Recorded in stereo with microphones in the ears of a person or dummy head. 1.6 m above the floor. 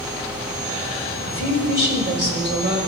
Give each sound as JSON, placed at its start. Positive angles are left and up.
{"t": 1.3, "sound": "a woman speaking", "side_deg": -45, "distance_m": 5.5}